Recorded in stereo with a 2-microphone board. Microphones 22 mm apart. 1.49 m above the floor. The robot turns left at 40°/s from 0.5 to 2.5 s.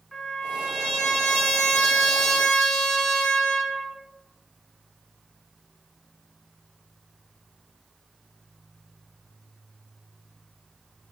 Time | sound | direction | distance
0.1 | a trumpet | 145° left | 1.7 m